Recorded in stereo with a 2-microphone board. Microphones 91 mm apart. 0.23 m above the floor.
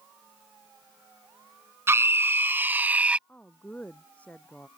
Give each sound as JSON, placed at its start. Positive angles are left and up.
{"t": 1.9, "sound": "a scream", "side_deg": -30}
{"t": 3.3, "sound": "a woman speaking", "side_deg": 15}